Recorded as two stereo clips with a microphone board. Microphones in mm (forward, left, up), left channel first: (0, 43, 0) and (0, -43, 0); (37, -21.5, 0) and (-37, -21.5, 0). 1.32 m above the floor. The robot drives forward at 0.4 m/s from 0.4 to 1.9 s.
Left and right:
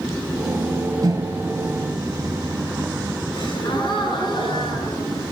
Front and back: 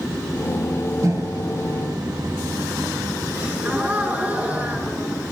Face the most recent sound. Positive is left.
turn(degrees=115)